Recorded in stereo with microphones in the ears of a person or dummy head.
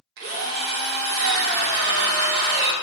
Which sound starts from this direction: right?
A drill, at 0.2 s.